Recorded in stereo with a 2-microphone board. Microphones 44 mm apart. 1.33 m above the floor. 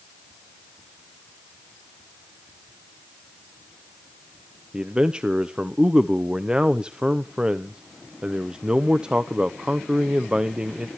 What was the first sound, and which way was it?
A man speaking, 20° right (ahead or behind).